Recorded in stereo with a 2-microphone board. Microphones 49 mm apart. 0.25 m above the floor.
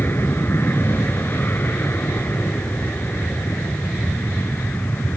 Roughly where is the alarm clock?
No alarm clock in this recording.